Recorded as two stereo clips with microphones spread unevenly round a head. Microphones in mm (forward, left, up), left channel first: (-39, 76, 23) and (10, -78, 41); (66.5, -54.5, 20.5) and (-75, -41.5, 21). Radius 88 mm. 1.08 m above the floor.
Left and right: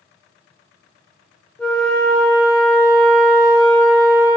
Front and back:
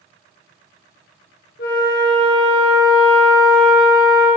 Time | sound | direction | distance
1.6 | a flute | 20° left | 0.9 m